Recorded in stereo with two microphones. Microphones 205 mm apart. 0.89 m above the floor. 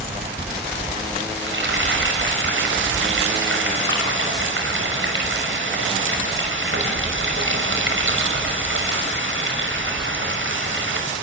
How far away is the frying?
About 6 m.